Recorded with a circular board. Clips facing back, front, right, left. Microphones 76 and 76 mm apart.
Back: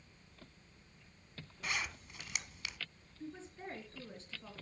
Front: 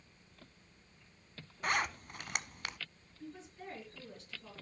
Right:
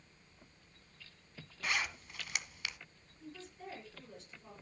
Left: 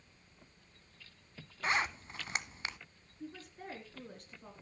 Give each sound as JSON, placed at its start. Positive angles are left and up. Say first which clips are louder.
{"t": 1.6, "sound": "a zipper", "louder": "front 6 dB, left 4 dB", "azimuth_deg": 35, "distance_m": 0.6}
{"t": 3.2, "sound": "a woman speaking", "louder": "back 1 dB, left 2 dB", "azimuth_deg": 120, "distance_m": 4.5}